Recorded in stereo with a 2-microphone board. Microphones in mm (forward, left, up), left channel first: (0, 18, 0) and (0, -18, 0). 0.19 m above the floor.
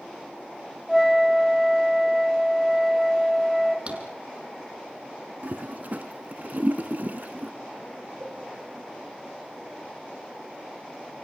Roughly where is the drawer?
Right.